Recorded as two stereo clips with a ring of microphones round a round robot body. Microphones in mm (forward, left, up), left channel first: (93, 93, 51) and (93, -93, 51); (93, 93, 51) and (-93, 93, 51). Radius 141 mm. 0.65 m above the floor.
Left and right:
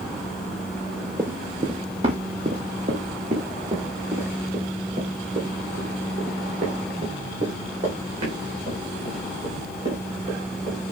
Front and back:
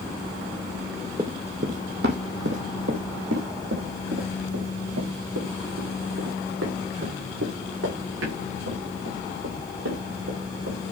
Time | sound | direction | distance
1.2 | running footsteps | 140° right | 0.6 m